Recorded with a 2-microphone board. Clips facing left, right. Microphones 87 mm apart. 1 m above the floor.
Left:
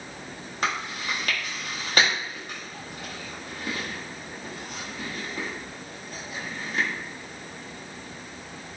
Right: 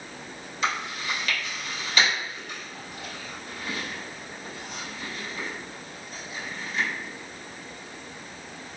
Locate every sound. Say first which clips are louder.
0.6 s chewing: even; 45° left (ahead or behind), 0.8 m